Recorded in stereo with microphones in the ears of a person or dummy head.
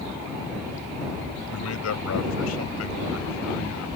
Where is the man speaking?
85° left; by 4.0 s 70° left (ahead or behind).